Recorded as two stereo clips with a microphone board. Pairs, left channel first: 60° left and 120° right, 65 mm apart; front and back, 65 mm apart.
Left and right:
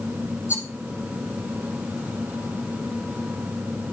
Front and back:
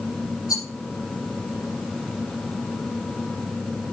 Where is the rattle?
10° left, 5.5 m.